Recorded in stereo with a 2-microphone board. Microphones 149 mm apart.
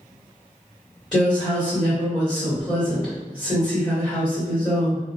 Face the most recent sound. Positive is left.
turn(degrees=0)  # may be behind; listen again after turning